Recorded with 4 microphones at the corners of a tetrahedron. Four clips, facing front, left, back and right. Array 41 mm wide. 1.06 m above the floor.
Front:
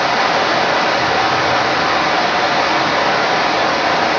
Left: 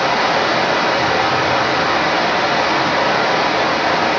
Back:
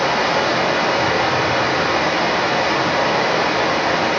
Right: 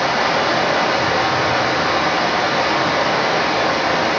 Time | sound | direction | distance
0.0 | running water | 20° left | 1.6 m